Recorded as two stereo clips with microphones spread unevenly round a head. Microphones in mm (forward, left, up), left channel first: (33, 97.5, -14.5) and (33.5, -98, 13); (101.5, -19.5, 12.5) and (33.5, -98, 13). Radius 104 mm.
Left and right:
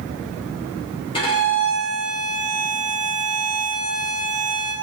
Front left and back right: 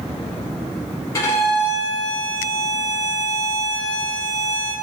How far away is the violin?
About 0.7 m.